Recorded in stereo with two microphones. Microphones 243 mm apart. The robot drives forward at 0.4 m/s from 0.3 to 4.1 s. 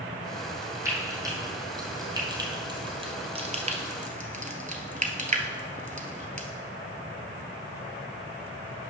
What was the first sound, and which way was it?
Frying, 15° right (ahead or behind).